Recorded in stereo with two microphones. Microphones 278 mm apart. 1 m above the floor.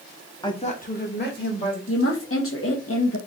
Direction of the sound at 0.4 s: 15° left (ahead or behind).